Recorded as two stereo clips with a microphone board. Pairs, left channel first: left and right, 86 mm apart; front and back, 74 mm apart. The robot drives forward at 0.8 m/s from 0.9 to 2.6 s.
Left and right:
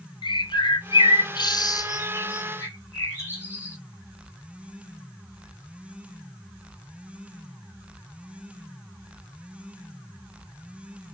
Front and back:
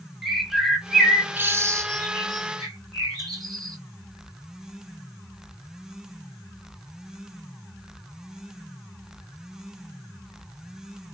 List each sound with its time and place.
0.2 s a bird: 95° left, 0.8 m; by 3.8 s 150° left, 1.6 m